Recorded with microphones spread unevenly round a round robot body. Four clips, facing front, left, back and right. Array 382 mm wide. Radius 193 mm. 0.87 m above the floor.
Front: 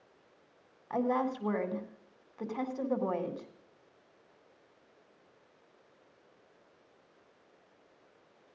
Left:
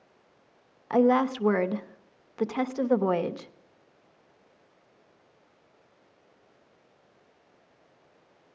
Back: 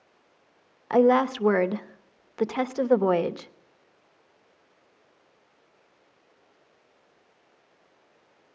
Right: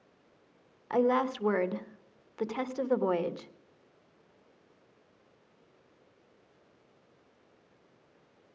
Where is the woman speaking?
170° left, 1.2 m.